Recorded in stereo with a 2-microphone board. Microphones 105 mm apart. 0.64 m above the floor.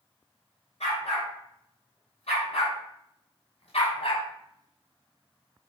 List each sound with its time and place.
0.8 s a dog barking: 85° left, 3.5 m; by 4.2 s 70° left (ahead or behind), 1.4 m